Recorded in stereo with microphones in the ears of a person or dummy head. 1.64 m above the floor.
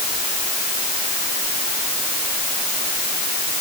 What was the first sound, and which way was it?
Only background noise.